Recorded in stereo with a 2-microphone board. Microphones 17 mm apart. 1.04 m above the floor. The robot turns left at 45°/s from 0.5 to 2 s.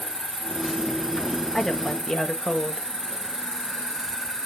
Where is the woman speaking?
25° left (ahead or behind), 0.9 m; by 2.9 s 45° left (ahead or behind), 0.9 m.